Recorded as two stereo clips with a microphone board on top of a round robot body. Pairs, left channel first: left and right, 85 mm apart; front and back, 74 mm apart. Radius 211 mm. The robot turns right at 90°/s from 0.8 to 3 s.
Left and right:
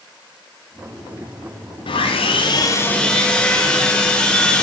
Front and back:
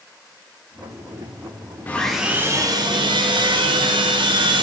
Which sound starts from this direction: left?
Sawing, at 1.9 s.